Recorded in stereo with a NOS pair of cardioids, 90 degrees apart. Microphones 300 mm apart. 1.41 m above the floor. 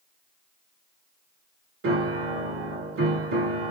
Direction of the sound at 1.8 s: 45° right.